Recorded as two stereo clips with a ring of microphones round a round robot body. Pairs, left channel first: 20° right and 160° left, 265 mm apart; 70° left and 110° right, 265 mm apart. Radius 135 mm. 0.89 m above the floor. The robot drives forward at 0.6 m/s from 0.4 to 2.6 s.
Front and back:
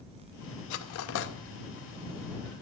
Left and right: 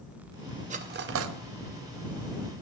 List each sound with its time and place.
0.7 s cutlery clinking: 45° right, 0.7 m; by 1.3 s 80° right, 0.5 m